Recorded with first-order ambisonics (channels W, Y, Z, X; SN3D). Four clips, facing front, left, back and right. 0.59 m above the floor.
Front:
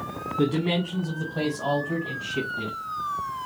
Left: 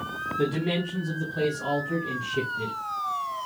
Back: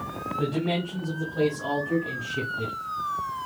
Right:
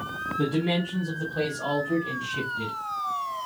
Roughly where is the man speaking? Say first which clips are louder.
Right 1 dB, front 3 dB; ahead.